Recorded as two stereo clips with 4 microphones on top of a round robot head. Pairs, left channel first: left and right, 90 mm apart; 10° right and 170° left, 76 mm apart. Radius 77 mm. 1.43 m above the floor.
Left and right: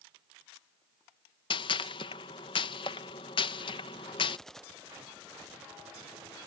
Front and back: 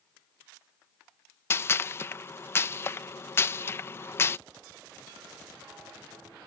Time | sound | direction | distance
1.5 | a gunshot | 45° left | ?